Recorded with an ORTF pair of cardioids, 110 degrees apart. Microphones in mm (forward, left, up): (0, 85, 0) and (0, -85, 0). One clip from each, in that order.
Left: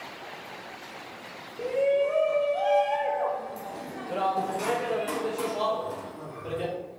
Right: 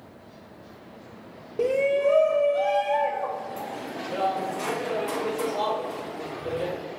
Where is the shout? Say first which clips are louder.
Right 2 dB; 45° right, 0.6 m; by 6.7 s 40° left, 3.5 m.